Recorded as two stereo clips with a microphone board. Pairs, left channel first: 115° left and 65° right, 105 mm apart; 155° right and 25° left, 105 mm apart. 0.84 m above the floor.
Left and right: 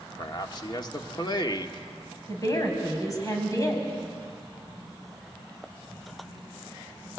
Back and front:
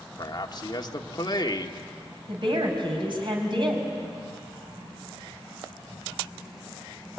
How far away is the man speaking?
About 1.5 m.